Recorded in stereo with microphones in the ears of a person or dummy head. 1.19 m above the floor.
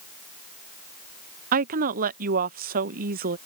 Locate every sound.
1.5 s a woman speaking: 45° right (ahead or behind)